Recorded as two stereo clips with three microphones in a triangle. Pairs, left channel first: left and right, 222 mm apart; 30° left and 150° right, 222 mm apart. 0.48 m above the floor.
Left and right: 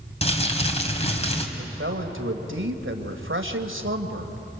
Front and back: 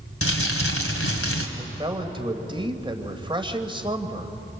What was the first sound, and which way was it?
Crumpling, 30° left.